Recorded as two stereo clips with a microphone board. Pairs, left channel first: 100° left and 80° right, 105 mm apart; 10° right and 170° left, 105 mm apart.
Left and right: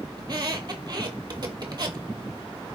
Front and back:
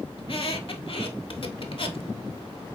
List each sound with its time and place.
0.2 s a squeak: 35° right, 0.7 m